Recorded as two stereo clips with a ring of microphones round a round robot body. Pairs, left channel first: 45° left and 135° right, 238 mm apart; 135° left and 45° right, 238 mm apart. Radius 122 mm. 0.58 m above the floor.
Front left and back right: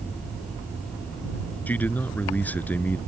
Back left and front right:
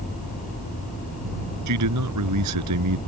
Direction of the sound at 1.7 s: 40° right.